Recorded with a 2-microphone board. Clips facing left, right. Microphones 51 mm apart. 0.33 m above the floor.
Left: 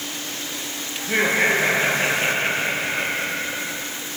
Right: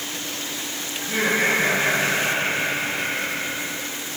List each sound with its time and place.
1.0 s laughter: 35° left (ahead or behind), 7.5 m; by 3.8 s 30° left (ahead or behind), 9.5 m